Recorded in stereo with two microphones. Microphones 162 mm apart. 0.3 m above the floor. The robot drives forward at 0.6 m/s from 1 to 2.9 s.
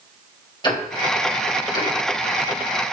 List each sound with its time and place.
0.6 s ticking: 30° left (ahead or behind), 1.8 m; by 2.8 s 20° left (ahead or behind), 2.5 m